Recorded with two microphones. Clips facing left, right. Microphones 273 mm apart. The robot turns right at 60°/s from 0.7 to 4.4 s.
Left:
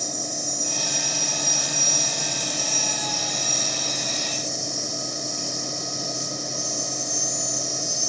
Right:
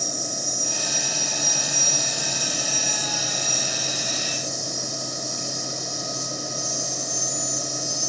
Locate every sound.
0.0 s an insect: 170° left, 4 m; by 8.1 s 30° left, 4 m